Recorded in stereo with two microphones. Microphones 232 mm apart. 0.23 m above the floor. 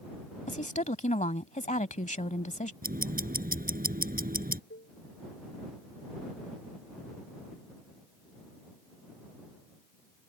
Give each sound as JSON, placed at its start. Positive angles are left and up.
{"t": 0.5, "sound": "a woman speaking", "side_deg": 30}
{"t": 2.8, "sound": "ticking", "side_deg": -35}
{"t": 4.7, "sound": "a cowbell", "side_deg": 50}